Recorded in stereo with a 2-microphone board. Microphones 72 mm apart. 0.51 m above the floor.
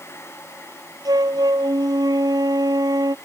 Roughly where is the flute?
Right.